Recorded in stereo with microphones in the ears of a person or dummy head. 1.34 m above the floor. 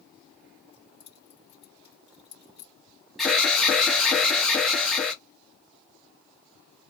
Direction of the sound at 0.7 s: 40° left (ahead or behind).